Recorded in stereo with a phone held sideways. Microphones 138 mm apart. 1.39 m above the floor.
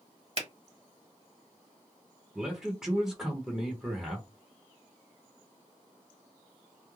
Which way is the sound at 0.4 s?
50° right (ahead or behind).